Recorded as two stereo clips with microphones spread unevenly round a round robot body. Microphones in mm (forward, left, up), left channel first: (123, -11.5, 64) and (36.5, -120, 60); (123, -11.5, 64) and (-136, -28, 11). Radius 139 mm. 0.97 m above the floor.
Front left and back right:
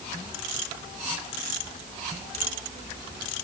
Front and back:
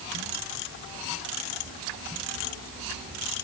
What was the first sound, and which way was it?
Only background noise.